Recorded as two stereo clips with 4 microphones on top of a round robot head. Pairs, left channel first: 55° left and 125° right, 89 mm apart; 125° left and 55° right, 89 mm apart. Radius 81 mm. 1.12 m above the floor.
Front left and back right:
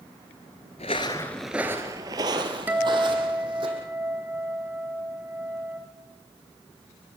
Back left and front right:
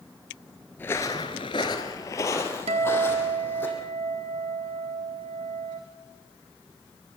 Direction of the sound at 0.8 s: 60° left.